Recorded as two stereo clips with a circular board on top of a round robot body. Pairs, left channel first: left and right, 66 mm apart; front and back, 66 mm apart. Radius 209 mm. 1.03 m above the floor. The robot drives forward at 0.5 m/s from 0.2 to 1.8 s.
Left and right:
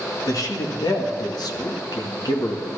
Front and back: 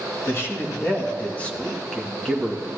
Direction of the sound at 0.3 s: 55° left.